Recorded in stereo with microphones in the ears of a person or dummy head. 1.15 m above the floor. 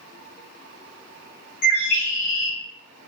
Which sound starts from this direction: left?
A bird, at 1.6 s.